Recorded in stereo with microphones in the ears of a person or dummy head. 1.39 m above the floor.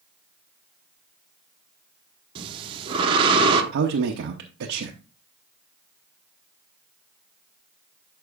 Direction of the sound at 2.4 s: 25° right (ahead or behind).